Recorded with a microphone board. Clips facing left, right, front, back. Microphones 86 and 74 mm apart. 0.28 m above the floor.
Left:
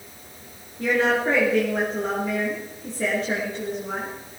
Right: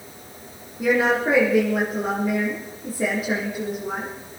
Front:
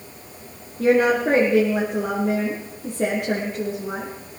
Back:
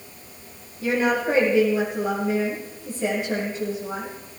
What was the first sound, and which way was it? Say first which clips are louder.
A woman speaking: right 2 dB, front 5 dB; 10° right.